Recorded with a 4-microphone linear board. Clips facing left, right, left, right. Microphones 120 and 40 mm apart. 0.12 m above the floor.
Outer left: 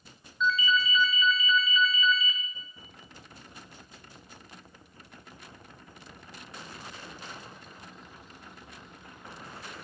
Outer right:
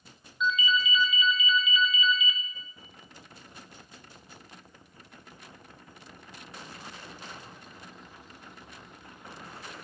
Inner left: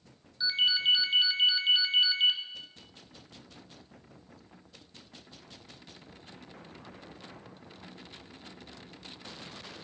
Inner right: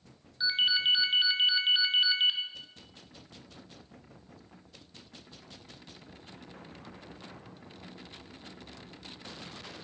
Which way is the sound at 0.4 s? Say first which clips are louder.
Outer left 1 dB, even; 15° right (ahead or behind).